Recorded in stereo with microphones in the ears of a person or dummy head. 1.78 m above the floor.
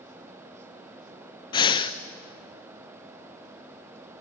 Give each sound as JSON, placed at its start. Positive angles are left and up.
{"t": 1.5, "sound": "breathing", "side_deg": 30, "distance_m": 0.8}